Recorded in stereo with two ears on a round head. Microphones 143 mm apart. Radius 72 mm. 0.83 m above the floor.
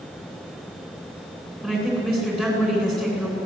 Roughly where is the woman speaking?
Centre.